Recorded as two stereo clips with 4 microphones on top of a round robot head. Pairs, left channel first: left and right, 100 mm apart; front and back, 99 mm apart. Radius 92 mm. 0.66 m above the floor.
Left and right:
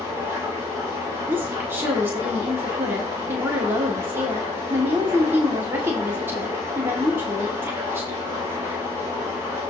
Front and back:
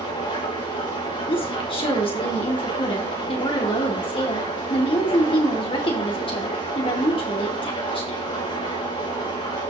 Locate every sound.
0.0 s an engine running: 20° right, 5.5 m
1.3 s a woman speaking: 25° right, 2.5 m